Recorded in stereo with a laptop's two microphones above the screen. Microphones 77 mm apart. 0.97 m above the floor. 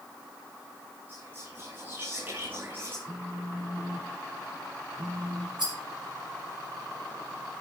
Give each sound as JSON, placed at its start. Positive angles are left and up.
{"t": 1.1, "sound": "whispering", "side_deg": -30, "distance_m": 7.0}
{"t": 3.0, "sound": "a phone buzzing", "side_deg": -50, "distance_m": 3.5}
{"t": 5.6, "sound": "a rattle", "side_deg": -75, "distance_m": 4.5}